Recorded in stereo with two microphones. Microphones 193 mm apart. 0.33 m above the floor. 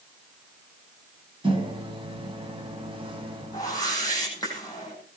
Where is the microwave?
25° right (ahead or behind), 2.5 m.